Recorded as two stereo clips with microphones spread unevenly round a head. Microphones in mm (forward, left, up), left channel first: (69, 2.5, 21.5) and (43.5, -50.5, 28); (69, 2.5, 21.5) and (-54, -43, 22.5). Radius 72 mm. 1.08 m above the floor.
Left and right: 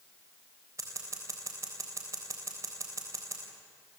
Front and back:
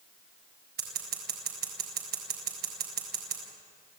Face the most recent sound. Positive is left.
turn(degrees=180)